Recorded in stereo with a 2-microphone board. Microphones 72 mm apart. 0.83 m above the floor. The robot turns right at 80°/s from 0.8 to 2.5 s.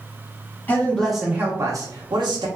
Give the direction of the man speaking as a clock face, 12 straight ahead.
7 o'clock.